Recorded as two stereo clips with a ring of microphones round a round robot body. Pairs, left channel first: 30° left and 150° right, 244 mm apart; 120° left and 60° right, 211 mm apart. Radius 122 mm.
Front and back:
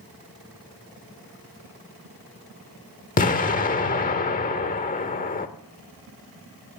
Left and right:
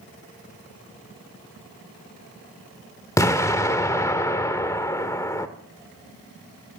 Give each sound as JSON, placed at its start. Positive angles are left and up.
{"t": 3.2, "sound": "an explosion", "azimuth_deg": 55, "distance_m": 1.2}